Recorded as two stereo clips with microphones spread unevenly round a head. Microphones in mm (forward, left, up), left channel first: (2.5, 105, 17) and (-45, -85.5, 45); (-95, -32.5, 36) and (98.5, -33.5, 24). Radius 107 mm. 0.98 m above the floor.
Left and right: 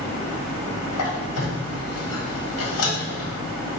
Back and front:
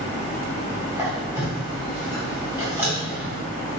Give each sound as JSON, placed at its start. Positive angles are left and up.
{"t": 0.9, "sound": "a squeak", "azimuth_deg": 80, "distance_m": 1.3}